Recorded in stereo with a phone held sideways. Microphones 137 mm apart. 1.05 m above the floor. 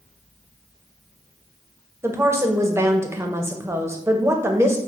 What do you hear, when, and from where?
2.0 s a woman speaking: 20° right (ahead or behind), 0.6 m